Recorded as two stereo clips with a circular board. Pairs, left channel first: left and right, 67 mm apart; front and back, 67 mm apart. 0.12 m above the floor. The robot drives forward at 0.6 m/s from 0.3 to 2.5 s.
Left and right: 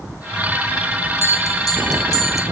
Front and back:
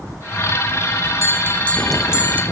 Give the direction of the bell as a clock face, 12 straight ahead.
11 o'clock.